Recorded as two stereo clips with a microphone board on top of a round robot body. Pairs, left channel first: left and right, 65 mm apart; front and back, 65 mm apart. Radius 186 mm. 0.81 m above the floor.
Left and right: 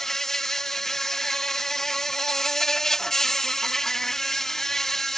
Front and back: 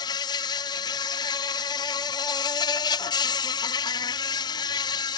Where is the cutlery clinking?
No cutlery clinking in this recording.